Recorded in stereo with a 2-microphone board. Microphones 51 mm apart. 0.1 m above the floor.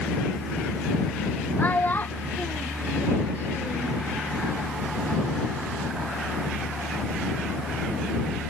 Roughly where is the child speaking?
Left.